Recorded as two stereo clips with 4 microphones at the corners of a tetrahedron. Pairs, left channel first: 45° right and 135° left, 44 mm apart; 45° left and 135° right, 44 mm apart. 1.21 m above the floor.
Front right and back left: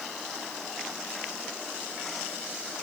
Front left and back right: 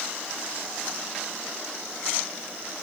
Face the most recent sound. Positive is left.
No sound to turn to.